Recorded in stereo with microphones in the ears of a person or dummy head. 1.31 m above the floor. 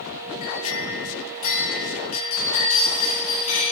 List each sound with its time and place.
0.4 s a clink: 45° left (ahead or behind), 6.5 m